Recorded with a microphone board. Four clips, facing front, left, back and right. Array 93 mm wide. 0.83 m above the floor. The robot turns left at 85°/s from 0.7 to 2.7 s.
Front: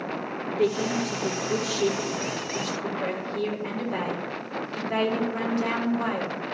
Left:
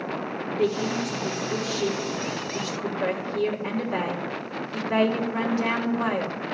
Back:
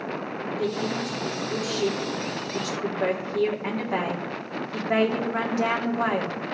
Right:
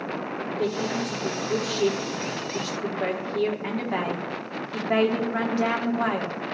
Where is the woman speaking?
40° left, 2 m; by 6.4 s 130° right, 2 m.